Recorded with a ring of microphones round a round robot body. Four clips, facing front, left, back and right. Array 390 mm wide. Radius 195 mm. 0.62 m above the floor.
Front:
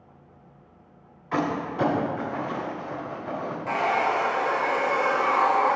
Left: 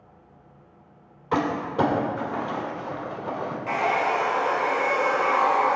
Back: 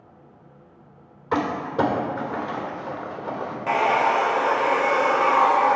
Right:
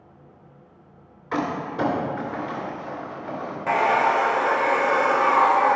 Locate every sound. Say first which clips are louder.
1.3 s crumpling: left 2 dB, back 3 dB; 155° left, 3 m
3.7 s a hair dryer: right 5 dB, back 4 dB; 130° right, 0.7 m